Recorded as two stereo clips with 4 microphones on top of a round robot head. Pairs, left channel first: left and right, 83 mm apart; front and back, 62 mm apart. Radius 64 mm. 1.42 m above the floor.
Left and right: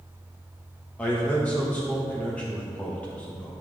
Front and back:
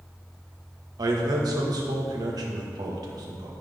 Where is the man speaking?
170° left, 1.6 m.